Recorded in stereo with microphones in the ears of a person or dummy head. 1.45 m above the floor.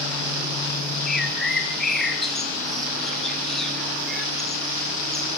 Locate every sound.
1.1 s a bird: centre (ahead or behind), 1.6 m